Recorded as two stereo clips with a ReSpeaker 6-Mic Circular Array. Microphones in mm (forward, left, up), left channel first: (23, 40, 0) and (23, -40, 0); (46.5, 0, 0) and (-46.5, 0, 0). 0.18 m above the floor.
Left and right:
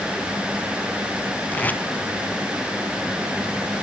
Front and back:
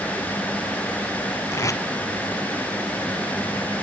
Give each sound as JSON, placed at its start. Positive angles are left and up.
{"t": 1.5, "sound": "tape being pulled", "azimuth_deg": 30, "distance_m": 0.8}